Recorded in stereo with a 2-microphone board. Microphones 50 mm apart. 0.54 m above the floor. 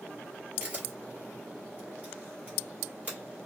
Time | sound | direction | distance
0.6 | a camera shutter | 30° right (ahead or behind) | 1.8 m